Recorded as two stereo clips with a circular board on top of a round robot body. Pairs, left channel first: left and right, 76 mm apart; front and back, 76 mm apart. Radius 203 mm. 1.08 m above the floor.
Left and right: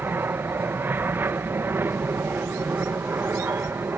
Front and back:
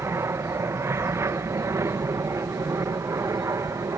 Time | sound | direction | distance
0.0 | an aircraft | 140° right | ?